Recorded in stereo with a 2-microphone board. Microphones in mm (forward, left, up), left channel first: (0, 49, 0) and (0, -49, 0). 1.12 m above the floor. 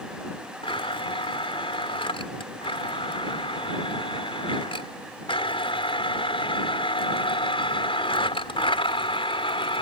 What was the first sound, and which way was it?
A blender, 65° left (ahead or behind).